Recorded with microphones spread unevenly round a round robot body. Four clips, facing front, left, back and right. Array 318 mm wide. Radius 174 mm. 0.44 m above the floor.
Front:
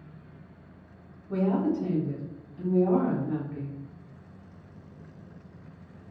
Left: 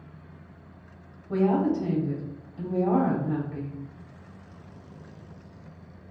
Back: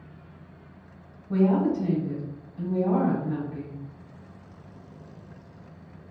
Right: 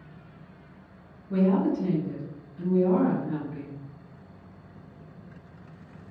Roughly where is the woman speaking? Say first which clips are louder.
Even, back 4 dB; left.